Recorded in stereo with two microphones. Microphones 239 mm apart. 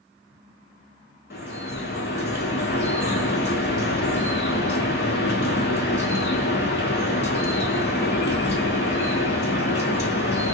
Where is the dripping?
45° left (ahead or behind), 1.1 m.